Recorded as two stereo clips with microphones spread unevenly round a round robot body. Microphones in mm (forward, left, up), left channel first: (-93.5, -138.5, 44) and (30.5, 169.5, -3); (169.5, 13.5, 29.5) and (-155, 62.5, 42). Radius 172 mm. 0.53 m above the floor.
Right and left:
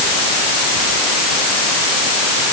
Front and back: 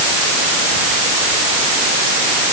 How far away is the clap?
I don't hear a clap.